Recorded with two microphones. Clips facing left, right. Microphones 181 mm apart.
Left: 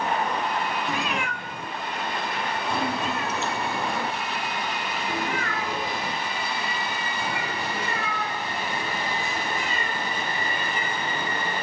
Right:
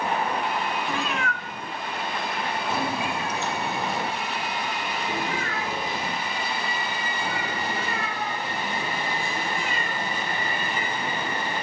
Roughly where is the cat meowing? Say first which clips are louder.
Even; centre.